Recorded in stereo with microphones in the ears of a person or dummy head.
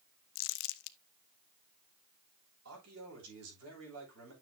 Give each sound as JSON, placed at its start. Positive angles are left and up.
{"t": 0.3, "sound": "crumpling", "side_deg": 65, "distance_m": 0.5}
{"t": 2.6, "sound": "a man speaking", "side_deg": -80, "distance_m": 7.0}